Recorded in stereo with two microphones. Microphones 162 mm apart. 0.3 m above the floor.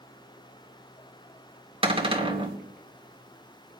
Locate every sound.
1.8 s a cupboard door: 35° right (ahead or behind), 1.5 m